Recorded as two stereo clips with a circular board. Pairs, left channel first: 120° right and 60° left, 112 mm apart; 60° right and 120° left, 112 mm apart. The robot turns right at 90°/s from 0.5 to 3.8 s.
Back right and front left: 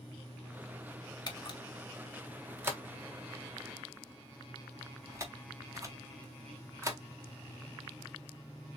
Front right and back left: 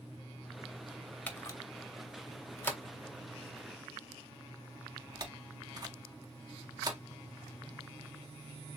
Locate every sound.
1.3 s a camera shutter: 125° right, 0.6 m; by 7.0 s 105° left, 0.6 m